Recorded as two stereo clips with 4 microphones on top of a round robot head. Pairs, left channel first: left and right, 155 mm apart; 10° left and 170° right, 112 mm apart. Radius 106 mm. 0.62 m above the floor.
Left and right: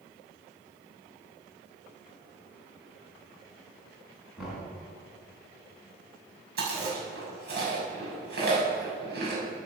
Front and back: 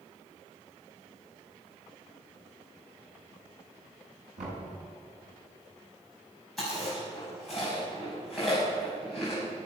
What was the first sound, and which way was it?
Knocking, 175° right.